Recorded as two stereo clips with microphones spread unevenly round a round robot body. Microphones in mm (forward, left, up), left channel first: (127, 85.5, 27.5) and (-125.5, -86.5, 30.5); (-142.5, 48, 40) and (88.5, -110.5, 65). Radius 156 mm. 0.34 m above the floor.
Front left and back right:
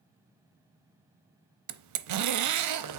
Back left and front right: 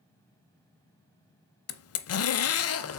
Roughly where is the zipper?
Behind.